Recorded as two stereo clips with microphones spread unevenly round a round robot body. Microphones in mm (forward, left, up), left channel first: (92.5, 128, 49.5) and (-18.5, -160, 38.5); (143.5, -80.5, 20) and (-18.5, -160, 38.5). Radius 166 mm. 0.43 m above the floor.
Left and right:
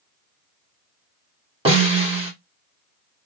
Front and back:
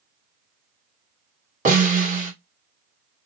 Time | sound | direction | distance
1.6 | a snare drum | 165° right | 1.4 m